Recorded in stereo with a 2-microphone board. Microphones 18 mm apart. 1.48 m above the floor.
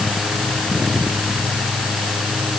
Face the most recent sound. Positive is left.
No sound to turn to.